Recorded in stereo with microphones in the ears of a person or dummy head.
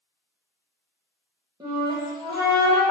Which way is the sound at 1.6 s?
20° right (ahead or behind).